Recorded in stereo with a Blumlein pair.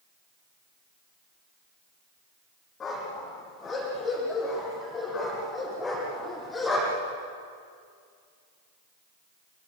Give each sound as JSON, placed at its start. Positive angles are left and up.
{"t": 2.8, "sound": "a dog barking", "azimuth_deg": 20, "distance_m": 10.0}